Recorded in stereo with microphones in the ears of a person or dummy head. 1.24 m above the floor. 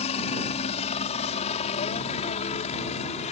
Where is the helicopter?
30° left (ahead or behind).